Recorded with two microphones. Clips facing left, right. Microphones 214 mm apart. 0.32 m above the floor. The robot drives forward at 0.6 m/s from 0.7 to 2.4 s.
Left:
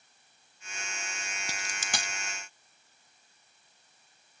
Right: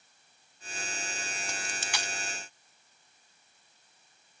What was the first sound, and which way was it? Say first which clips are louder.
A dropped coin: left 2 dB; 35° left (ahead or behind).